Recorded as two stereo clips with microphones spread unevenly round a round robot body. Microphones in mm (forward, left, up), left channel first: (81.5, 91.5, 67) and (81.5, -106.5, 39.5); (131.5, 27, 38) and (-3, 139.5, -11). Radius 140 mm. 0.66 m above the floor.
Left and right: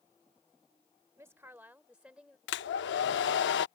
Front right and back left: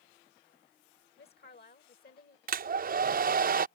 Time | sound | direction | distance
1.2 | a woman speaking | 15° right | ?
2.5 | a hair dryer | 125° left | ?